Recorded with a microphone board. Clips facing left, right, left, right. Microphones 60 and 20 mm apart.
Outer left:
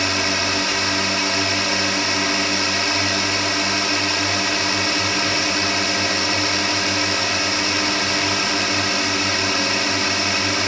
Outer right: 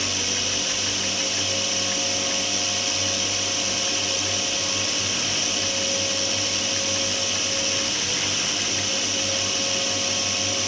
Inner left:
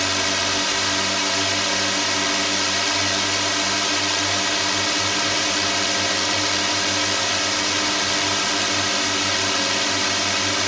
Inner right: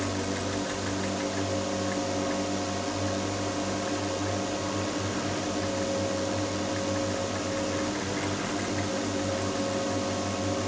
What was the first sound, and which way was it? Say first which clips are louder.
A drone: outer left 8 dB, inner left 10 dB; 70° left (ahead or behind).